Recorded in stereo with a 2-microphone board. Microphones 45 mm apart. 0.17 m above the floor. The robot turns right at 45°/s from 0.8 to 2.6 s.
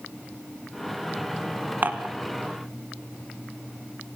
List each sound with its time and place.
1.8 s dishes clattering: 40° right (ahead or behind), 1.2 m